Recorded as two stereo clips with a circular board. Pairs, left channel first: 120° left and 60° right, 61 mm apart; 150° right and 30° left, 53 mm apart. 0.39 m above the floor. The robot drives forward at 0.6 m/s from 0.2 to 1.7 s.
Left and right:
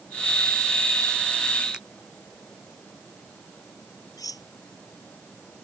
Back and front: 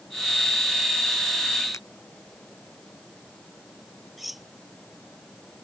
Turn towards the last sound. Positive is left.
turn(degrees=120)